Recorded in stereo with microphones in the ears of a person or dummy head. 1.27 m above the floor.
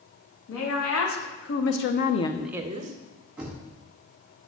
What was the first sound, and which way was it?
A woman speaking, 85° left.